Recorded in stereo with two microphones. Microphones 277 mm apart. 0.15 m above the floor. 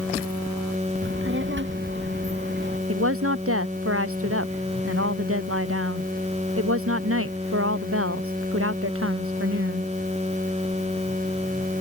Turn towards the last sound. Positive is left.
turn(degrees=-50)  # may be behind; listen again after turning